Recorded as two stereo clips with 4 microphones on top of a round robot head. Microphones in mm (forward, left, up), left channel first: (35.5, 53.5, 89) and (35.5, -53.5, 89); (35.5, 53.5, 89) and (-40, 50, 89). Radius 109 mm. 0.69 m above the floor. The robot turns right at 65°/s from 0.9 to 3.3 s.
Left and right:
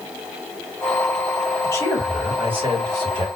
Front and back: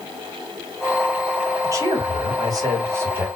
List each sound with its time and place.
1.6 s a man speaking: 145° left, 1.9 m; by 3.3 s 110° right, 1.9 m